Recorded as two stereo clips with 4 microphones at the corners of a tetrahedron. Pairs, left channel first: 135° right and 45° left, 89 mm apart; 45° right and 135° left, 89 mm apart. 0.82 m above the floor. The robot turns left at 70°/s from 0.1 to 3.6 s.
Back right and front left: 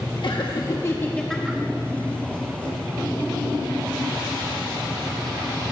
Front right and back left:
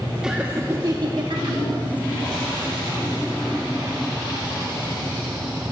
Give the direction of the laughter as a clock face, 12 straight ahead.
5 o'clock.